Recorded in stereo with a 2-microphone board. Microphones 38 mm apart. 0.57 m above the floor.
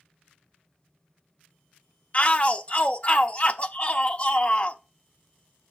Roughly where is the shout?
Left.